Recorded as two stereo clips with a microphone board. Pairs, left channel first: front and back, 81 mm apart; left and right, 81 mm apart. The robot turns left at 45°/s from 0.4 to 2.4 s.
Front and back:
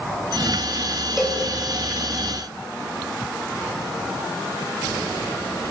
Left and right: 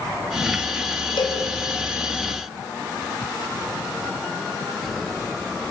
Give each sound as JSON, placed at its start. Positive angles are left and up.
{"t": 1.2, "sound": "a cowbell", "azimuth_deg": 90, "distance_m": 4.0}